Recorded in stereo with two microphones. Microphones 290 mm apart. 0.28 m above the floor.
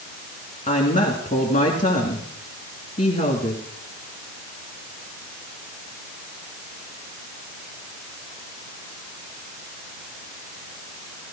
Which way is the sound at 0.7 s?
25° left (ahead or behind).